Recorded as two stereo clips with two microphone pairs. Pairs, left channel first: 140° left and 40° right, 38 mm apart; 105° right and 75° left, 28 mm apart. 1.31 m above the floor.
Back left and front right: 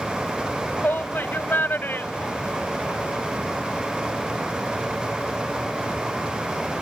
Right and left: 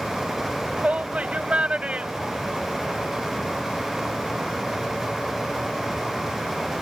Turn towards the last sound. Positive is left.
turn(degrees=125)